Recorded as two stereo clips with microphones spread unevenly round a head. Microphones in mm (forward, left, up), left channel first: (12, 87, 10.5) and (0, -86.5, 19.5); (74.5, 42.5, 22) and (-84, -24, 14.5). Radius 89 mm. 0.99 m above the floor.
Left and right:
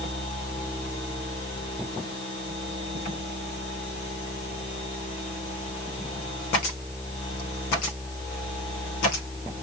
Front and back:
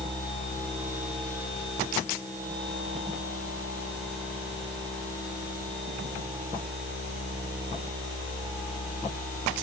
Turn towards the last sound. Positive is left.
No sound to turn to.